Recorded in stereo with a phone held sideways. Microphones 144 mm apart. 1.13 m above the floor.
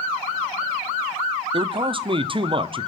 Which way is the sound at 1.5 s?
35° right (ahead or behind).